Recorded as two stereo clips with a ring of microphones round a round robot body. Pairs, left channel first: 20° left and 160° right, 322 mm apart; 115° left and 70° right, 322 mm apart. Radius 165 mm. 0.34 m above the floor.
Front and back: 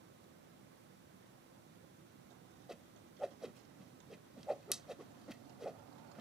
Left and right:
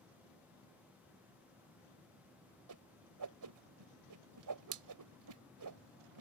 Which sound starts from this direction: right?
A whoosh, at 2.7 s.